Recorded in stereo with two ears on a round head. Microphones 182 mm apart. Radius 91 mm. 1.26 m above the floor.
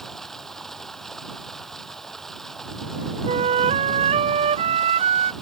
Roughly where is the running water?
Centre.